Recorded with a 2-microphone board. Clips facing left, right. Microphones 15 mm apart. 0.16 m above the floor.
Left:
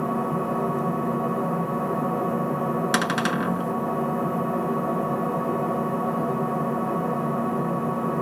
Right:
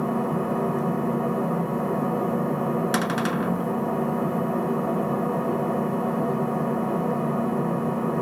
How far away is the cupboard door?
About 0.7 m.